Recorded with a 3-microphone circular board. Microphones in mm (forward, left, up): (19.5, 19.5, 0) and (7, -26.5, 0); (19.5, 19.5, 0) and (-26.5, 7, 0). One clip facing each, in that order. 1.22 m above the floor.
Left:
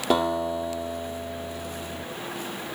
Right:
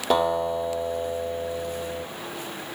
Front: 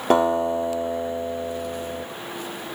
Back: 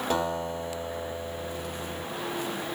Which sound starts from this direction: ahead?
A guitar, at 0.1 s.